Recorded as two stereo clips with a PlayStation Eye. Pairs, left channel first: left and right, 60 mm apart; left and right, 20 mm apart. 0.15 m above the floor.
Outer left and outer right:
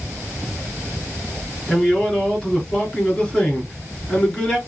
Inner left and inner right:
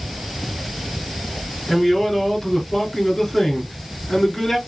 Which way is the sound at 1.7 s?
15° left (ahead or behind).